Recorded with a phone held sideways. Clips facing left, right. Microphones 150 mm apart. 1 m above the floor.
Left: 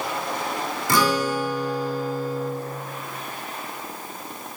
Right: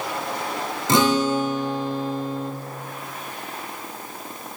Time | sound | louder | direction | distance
0.9 | a guitar | right 3 dB | 20° right (ahead or behind) | 0.6 m